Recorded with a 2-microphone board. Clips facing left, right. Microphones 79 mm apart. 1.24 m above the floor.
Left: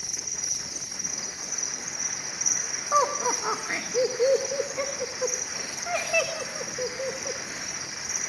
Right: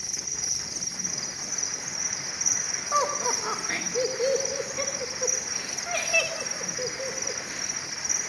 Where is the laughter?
15° left (ahead or behind), 1.6 m.